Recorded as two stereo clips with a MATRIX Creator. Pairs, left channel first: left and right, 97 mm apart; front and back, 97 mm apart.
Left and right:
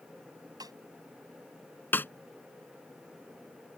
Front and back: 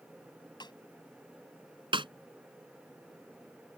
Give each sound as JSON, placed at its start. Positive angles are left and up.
{"t": 0.6, "sound": "a snare drum", "azimuth_deg": -40}
{"t": 1.9, "sound": "a snare drum", "azimuth_deg": 155}